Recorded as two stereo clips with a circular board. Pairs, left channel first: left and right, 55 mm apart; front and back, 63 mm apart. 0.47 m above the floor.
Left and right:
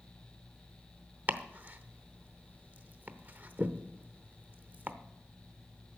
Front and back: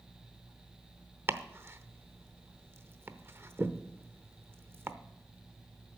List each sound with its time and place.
1.3 s chopping: 140° right, 0.7 m